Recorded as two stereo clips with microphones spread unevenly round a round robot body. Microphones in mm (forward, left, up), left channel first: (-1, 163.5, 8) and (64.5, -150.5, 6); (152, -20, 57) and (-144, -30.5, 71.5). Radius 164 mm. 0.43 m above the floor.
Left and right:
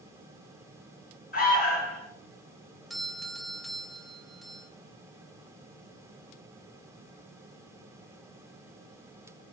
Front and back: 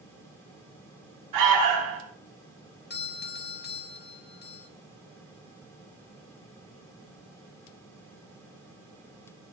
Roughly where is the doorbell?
Ahead.